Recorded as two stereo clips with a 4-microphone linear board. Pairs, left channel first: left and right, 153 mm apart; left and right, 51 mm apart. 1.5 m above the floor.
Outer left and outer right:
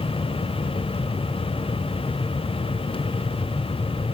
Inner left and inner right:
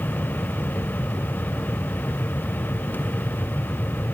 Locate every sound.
Only background noise.